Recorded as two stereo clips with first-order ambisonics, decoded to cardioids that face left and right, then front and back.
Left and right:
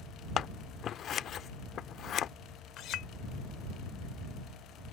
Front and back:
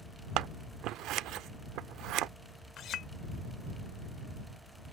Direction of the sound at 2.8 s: 50° left.